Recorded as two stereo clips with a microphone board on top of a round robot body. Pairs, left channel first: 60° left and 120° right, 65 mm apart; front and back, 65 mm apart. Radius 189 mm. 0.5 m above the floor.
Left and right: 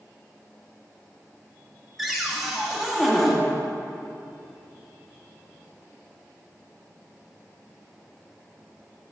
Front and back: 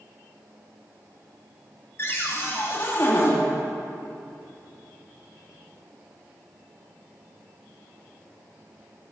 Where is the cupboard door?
30° right, 1.7 m.